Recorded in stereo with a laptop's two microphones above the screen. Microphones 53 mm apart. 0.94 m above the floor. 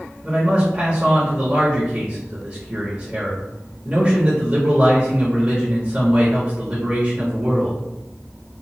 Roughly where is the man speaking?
Right.